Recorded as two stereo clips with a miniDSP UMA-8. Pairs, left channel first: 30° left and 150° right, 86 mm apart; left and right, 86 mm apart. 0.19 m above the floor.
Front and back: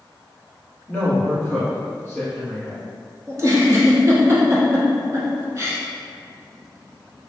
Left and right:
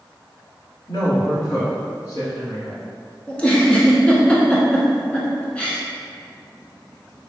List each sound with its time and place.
0.9 s a woman speaking: 115° left, 1.4 m
3.3 s a giggle: 165° left, 0.7 m